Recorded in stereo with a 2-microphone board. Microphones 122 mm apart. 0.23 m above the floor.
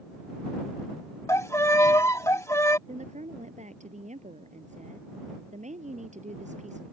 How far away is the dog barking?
I don't hear a dog barking.